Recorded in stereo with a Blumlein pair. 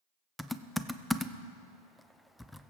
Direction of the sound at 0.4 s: 5° left.